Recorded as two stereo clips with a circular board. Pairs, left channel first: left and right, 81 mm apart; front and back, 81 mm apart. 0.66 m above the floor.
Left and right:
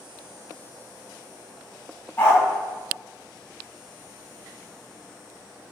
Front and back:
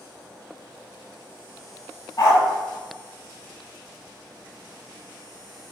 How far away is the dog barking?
About 0.7 m.